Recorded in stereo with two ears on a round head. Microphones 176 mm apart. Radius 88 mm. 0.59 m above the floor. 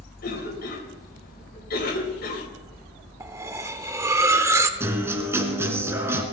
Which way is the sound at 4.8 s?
15° right (ahead or behind).